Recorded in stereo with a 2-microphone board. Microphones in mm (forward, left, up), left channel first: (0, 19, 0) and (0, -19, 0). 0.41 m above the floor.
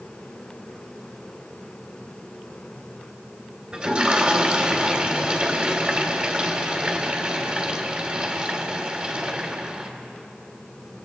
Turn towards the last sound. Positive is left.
turn(degrees=-35)  # may be behind; listen again after turning